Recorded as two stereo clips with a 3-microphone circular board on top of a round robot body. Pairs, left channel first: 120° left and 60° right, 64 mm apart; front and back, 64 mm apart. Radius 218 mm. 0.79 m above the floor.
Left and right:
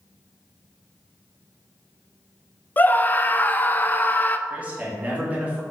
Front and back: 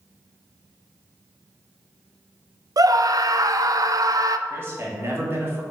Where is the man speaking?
130° right, 2 m.